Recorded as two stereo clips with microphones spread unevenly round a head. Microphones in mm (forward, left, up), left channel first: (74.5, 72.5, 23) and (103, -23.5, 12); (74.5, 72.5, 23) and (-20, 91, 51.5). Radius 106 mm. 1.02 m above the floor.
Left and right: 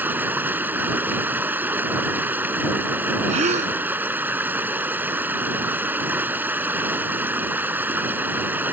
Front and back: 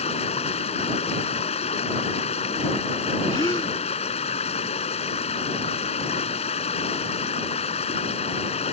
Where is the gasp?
85° right.